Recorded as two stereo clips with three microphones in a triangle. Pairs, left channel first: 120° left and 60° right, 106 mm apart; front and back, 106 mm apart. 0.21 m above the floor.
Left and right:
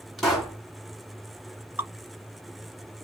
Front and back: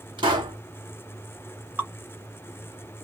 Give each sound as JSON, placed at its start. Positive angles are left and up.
{"t": 0.2, "sound": "a pop", "azimuth_deg": -155, "distance_m": 1.8}
{"t": 1.8, "sound": "dripping", "azimuth_deg": -120, "distance_m": 1.9}